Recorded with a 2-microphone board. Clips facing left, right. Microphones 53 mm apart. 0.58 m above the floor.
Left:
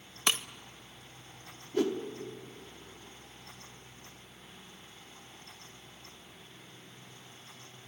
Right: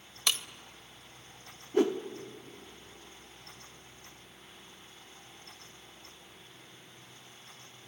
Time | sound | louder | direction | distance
0.3 | breaking glass | left 2 dB | 35° left (ahead or behind) | 0.7 m
1.7 | a whoosh | right 3 dB | 25° right (ahead or behind) | 1.2 m